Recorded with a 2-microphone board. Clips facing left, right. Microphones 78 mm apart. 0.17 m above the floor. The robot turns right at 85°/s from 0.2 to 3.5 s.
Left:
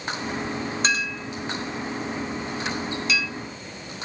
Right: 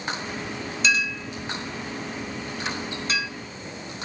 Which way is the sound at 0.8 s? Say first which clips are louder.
Right 4 dB; 45° left (ahead or behind).